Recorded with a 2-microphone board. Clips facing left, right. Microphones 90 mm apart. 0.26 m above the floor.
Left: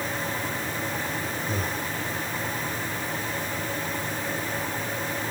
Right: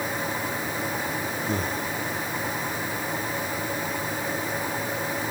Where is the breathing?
80° right, 6 m.